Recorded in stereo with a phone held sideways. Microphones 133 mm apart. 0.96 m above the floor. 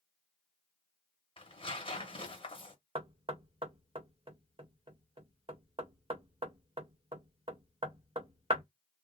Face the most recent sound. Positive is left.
turn(degrees=-40)  # may be behind; listen again after turning